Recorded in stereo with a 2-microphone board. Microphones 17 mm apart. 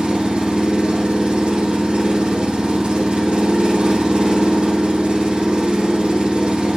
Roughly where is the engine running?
Right.